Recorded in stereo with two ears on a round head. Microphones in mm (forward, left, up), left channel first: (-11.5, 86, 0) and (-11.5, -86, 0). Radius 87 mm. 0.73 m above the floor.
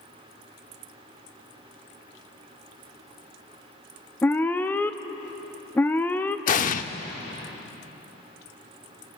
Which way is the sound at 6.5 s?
45° left (ahead or behind).